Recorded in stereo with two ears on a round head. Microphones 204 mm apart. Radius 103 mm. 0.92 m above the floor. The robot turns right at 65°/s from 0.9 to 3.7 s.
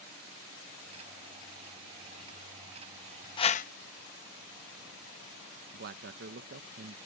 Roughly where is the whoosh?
Left.